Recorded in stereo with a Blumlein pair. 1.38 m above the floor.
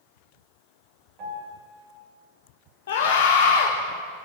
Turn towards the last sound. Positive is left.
turn(degrees=60)